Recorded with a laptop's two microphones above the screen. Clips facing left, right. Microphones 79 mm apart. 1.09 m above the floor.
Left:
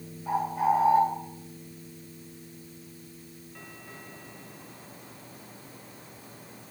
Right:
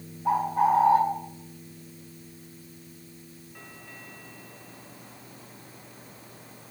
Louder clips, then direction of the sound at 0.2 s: Right 3 dB; 60° right (ahead or behind).